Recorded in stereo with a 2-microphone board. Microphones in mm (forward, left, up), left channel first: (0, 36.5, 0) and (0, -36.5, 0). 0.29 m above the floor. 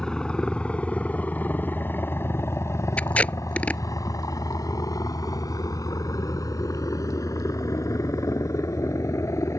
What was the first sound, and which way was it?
A helicopter, 10° left (ahead or behind).